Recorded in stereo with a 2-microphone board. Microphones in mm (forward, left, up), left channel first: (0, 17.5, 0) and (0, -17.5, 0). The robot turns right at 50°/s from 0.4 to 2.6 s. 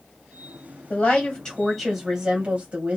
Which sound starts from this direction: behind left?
A woman speaking, at 0.9 s.